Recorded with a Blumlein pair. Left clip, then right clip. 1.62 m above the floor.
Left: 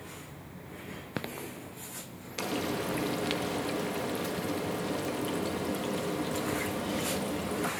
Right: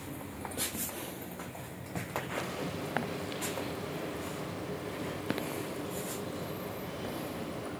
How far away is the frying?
About 2 m.